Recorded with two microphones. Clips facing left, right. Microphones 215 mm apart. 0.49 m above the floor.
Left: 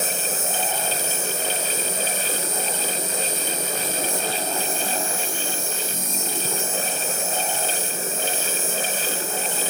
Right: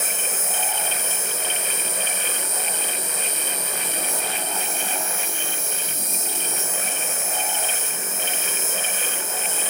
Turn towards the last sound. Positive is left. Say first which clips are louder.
# left 4 dB
turn(degrees=70)  # may be behind; listen again after turning